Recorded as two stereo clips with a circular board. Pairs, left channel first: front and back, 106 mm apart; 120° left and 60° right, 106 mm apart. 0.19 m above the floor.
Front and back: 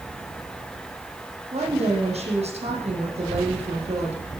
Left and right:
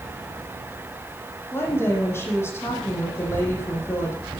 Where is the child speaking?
160° left, 6.5 m.